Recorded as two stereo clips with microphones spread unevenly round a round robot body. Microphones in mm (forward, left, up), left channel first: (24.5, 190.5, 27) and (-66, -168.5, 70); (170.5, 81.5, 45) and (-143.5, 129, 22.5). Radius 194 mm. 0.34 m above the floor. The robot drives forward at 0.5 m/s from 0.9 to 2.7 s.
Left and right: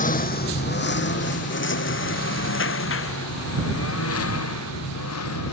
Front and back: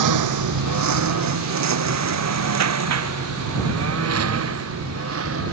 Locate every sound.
0.0 s a lawn mower: 145° left; by 5.5 s 125° left